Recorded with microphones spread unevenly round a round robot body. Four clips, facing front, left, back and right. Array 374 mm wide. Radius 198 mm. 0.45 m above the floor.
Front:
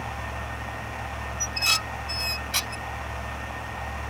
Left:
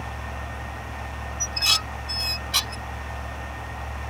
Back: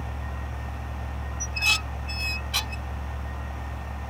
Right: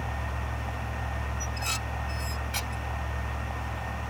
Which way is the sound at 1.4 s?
105° left.